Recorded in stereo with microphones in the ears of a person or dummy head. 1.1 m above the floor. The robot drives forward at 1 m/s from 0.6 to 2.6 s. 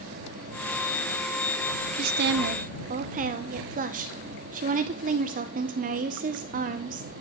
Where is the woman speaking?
45° right (ahead or behind), 0.6 m; by 7.1 s 40° right (ahead or behind), 0.6 m.